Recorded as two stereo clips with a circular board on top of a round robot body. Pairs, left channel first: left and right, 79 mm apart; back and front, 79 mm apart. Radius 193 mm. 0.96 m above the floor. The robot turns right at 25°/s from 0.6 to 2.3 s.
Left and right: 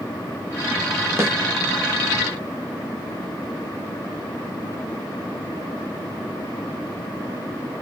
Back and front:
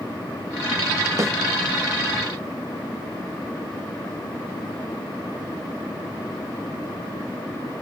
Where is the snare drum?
40° right, 1.3 m.